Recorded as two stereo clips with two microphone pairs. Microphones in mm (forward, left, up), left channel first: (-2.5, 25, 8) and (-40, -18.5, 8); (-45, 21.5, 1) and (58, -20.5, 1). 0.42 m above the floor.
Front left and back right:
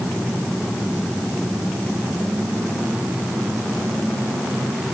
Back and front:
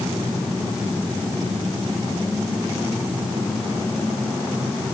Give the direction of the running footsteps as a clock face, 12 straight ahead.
No running footsteps in this recording.